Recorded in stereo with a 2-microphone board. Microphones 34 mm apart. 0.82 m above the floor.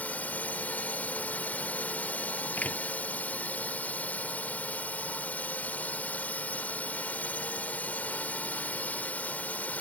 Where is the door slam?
50° left (ahead or behind).